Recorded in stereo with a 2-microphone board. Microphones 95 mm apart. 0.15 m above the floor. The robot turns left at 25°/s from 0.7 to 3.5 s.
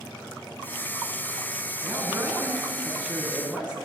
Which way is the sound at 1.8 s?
25° right (ahead or behind).